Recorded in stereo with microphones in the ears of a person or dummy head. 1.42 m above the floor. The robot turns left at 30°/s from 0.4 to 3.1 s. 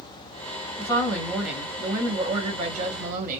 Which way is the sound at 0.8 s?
15° left.